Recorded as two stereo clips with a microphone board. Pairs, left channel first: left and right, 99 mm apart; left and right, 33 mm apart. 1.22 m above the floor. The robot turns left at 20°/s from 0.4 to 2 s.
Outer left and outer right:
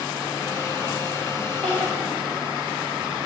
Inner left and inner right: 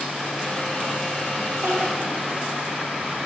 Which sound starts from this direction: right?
Crying, at 1.6 s.